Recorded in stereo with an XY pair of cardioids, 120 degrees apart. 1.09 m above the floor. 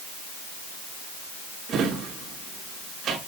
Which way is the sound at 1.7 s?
60° right.